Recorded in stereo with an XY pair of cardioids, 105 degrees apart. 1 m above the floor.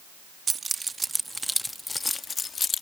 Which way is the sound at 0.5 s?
40° right.